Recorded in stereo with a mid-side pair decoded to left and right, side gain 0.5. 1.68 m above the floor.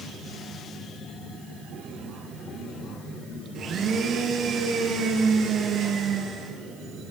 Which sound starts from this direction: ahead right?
A blender, at 3.5 s.